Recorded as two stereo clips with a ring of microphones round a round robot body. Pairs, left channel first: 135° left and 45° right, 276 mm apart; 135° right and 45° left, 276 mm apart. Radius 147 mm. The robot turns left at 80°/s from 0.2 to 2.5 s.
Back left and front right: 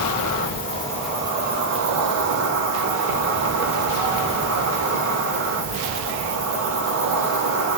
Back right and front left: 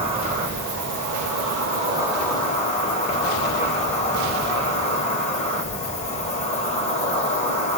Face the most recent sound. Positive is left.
turn(degrees=-70)